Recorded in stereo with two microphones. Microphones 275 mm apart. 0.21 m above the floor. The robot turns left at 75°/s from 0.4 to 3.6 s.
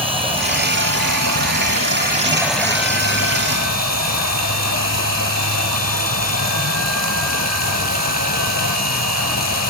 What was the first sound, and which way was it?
Running water, 20° right.